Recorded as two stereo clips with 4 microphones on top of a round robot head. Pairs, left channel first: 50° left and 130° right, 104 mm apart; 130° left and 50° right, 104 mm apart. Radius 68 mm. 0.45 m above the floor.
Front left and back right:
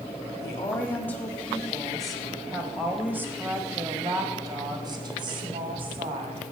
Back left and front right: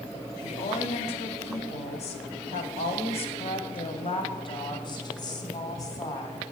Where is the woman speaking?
115° left, 2.5 m; by 6.4 s 165° right, 3.5 m.